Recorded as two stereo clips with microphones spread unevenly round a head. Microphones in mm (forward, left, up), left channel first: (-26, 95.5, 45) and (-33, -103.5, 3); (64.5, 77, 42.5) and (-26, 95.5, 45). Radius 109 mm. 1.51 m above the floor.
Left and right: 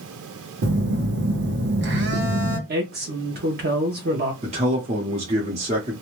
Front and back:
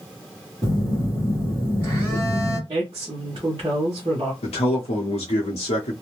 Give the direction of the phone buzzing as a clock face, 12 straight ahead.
4 o'clock.